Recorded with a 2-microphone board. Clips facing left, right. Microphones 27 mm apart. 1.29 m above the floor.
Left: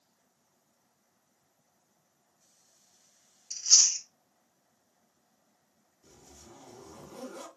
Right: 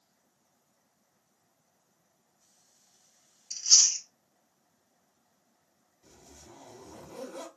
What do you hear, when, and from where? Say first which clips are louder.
3.5 s chewing: right 1 dB; 35° right (ahead or behind), 1.1 m
6.0 s a zipper: right 1 dB; 60° right (ahead or behind), 1.9 m